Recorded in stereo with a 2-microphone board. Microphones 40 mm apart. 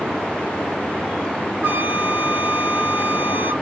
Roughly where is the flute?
Right.